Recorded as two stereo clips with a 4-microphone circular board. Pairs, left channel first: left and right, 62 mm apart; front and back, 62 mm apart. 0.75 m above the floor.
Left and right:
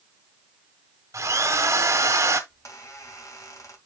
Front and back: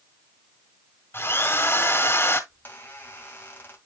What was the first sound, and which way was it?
A drill, 50° right.